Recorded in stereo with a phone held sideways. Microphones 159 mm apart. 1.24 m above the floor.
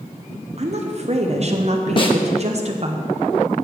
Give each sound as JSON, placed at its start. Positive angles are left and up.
{"t": 0.6, "sound": "a woman speaking", "side_deg": -45, "distance_m": 0.7}
{"t": 2.0, "sound": "a snare drum", "side_deg": 35, "distance_m": 0.9}